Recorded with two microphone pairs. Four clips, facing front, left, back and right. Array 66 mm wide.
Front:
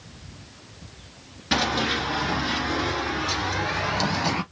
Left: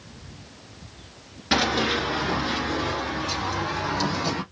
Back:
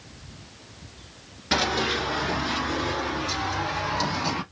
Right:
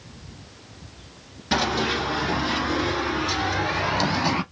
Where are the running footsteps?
90° left, 1.6 m; by 4.4 s 65° right, 2 m.